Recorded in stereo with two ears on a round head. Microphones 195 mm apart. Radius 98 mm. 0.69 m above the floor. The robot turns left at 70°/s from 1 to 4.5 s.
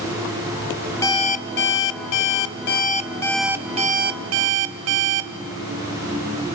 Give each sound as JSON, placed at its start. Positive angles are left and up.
{"t": 1.0, "sound": "an alarm clock", "azimuth_deg": 165, "distance_m": 0.8}